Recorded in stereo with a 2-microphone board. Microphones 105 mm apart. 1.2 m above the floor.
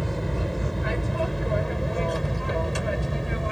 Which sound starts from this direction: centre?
An aircraft, at 0.0 s.